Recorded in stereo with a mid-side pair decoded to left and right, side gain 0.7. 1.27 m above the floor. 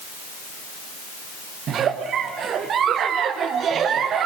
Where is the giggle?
40° right, 0.9 m.